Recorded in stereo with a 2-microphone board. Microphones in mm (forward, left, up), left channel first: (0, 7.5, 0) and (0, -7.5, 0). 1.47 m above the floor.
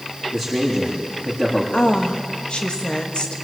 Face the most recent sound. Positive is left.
turn(degrees=80)